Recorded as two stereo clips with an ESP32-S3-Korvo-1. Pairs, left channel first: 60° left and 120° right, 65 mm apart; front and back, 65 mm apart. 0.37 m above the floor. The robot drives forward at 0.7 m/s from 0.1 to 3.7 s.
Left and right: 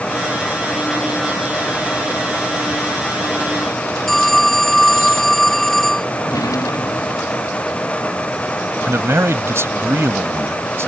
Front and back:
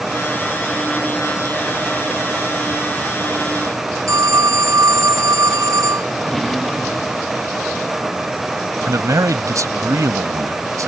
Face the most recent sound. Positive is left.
turn(degrees=-160)